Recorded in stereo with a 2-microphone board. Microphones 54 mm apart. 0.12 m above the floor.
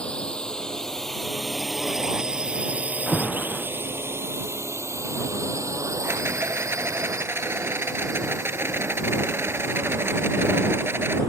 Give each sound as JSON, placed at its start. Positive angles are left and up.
{"t": 0.0, "sound": "a drone", "side_deg": 20}
{"t": 3.1, "sound": "an alarm", "side_deg": 10}
{"t": 6.0, "sound": "a rattle", "side_deg": -45}